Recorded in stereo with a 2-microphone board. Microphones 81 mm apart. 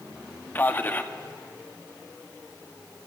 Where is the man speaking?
25° left (ahead or behind), 0.7 m.